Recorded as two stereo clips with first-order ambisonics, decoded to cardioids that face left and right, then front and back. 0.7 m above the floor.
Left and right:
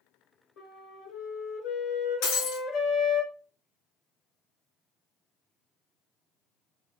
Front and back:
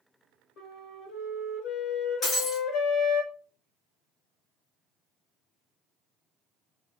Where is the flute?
50° left, 1.2 m.